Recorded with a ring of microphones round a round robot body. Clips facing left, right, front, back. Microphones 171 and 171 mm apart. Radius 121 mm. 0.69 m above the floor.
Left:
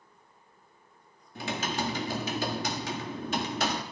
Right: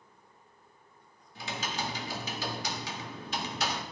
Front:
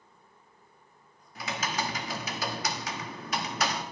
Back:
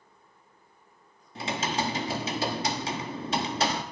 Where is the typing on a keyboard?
125° left, 1.2 m.